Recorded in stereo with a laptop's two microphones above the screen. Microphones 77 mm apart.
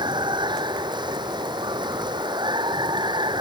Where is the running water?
80° right.